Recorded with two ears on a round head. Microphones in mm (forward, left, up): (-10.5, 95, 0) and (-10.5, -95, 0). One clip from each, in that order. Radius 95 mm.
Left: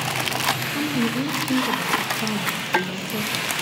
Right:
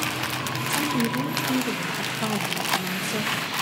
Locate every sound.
0.7 s a woman speaking: 75° right (ahead or behind), 3 m